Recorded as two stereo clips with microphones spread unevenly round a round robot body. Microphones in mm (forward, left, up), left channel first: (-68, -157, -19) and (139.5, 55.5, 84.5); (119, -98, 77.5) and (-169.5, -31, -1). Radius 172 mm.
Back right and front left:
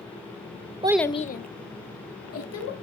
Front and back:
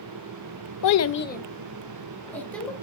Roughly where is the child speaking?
Ahead right.